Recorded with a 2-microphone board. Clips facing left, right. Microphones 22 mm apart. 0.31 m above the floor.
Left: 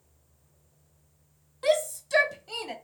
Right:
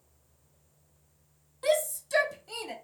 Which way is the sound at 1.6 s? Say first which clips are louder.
Left 2 dB; 15° left (ahead or behind).